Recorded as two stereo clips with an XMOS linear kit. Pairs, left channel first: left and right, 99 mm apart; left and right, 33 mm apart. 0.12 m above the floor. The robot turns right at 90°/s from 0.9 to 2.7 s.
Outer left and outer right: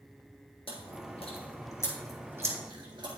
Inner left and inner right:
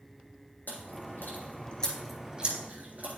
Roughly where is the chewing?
Left.